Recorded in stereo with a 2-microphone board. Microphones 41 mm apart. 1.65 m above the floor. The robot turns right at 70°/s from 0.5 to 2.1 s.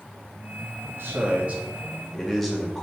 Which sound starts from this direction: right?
A man speaking, at 0.9 s.